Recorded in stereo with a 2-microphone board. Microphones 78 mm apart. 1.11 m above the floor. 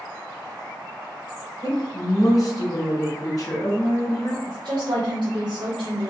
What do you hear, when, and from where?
1.6 s a woman speaking: 45° left (ahead or behind), 1.0 m
4.5 s a woman speaking: 75° right (ahead or behind), 0.7 m